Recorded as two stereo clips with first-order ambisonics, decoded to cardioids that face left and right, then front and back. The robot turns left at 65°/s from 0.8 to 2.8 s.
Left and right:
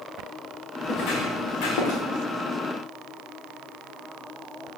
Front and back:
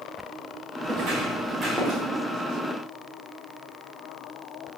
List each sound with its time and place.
0.8 s footsteps: 140° left, 4 m; by 2.0 s 85° left, 3 m